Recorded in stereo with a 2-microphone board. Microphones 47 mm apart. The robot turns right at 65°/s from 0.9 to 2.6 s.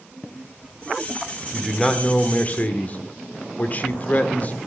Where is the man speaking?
Straight ahead, 1.1 m; by 4.5 s 70° left, 1.1 m.